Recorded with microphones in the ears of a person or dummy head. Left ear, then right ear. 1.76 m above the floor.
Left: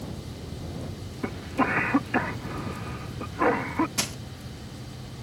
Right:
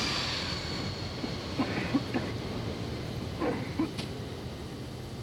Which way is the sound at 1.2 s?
45° left (ahead or behind).